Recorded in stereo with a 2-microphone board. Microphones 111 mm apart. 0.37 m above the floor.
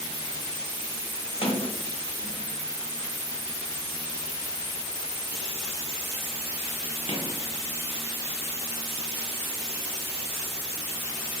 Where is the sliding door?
55° left (ahead or behind), 0.8 m.